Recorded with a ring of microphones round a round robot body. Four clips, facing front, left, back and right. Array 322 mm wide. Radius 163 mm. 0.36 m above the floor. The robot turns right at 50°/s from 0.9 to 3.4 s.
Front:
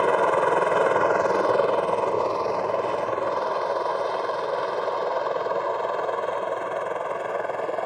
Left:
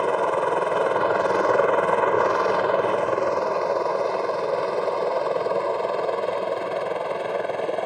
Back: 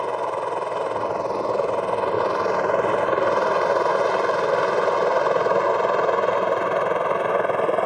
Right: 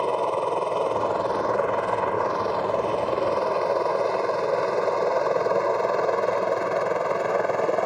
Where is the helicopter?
25° left; by 7.9 s 160° right.